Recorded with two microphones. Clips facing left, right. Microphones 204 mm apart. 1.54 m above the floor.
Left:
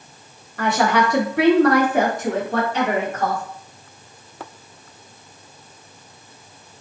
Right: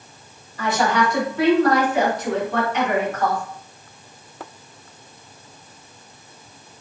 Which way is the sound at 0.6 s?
60° left (ahead or behind).